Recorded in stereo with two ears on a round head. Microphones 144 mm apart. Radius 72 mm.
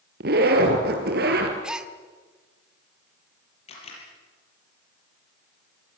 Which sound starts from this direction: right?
A zipper, at 0.2 s.